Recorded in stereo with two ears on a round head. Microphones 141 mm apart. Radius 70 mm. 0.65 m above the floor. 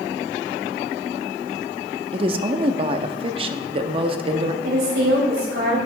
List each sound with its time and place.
2.1 s a woman speaking: 35° right (ahead or behind), 0.7 m
4.6 s a woman speaking: 75° right (ahead or behind), 3.5 m